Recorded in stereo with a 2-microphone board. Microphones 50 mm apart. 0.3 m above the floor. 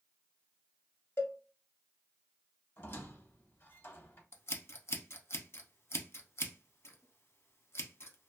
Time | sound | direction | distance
1.2 | a cowbell | 55° left (ahead or behind) | 0.7 m
2.8 | a squeak | 50° left (ahead or behind) | 0.8 m
4.3 | scissors | 60° left (ahead or behind) | 0.6 m